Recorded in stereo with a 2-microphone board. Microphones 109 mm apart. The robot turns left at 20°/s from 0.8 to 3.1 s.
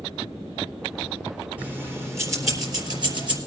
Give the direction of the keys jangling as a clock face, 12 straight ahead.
12 o'clock.